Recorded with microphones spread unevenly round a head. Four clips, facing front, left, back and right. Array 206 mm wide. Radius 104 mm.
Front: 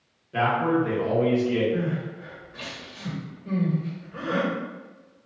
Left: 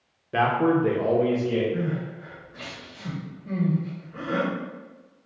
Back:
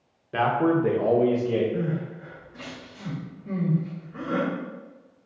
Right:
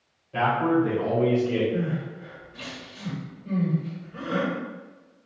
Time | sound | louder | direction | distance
0.3 | a man speaking | left 1 dB, back 1 dB | 100° left | 1.0 m
1.7 | crying | even, front 1 dB | 5° left | 1.9 m